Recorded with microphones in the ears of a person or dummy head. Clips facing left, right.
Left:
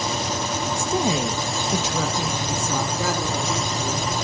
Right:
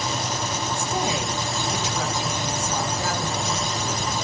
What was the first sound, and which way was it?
A woman speaking, 65° left (ahead or behind).